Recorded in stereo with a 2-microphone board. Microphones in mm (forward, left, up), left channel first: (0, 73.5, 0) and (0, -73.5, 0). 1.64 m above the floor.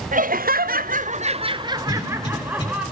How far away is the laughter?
About 0.7 m.